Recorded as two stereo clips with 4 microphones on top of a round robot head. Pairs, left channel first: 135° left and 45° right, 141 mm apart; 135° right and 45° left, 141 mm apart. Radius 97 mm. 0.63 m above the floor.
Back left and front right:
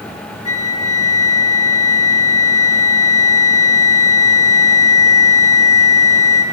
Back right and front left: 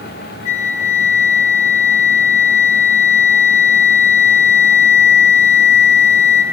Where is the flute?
105° right, 1.3 m.